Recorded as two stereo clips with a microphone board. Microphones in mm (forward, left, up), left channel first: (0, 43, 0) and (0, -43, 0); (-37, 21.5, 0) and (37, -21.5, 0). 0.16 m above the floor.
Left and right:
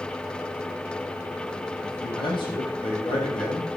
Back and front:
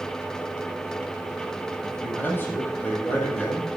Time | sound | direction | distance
1.8 | a man speaking | 85° left | 7.5 m